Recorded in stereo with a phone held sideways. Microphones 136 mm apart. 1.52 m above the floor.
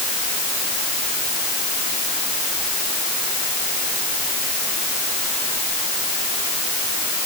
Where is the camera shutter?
I don't hear a camera shutter.